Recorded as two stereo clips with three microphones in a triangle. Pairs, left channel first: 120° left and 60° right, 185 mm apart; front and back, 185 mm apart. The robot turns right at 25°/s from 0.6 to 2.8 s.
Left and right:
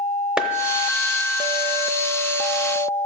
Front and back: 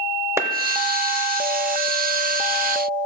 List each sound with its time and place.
0.4 s a clap: 135° right, 0.6 m